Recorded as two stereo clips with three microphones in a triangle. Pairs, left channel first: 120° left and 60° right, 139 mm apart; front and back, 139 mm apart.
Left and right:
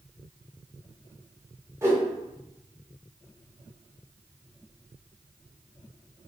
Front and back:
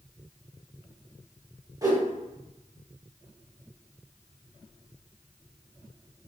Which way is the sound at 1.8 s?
125° right.